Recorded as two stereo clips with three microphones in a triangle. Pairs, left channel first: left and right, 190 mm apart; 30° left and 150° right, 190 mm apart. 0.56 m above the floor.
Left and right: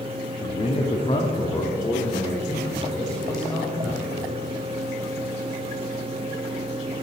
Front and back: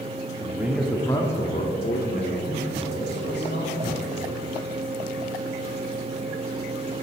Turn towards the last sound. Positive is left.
turn(degrees=0)